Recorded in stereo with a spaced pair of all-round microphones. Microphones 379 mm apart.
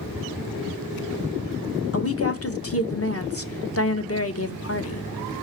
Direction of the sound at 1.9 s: 40° left (ahead or behind).